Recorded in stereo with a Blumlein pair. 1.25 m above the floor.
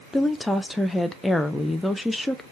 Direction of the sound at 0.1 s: 5° left.